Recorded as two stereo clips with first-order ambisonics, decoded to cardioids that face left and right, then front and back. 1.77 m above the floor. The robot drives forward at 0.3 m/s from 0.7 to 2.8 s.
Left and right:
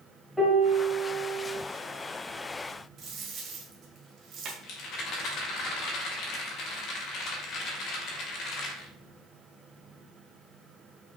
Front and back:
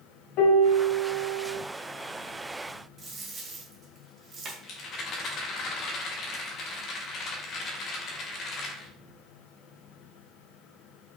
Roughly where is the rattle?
Ahead left.